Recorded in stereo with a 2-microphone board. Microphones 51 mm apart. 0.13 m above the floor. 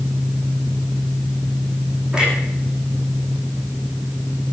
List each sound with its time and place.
2.1 s a clunk: 15° right (ahead or behind), 8 m